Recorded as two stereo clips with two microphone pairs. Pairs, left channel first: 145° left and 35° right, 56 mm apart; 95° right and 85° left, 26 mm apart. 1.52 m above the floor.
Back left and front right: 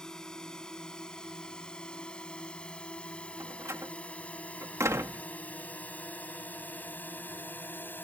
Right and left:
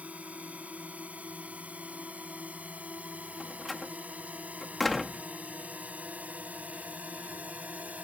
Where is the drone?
65° left; by 8.0 s 90° left.